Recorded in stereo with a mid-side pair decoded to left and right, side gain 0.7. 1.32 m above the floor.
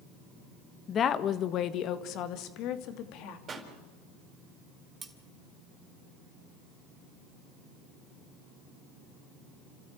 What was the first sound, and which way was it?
A woman speaking, 35° left.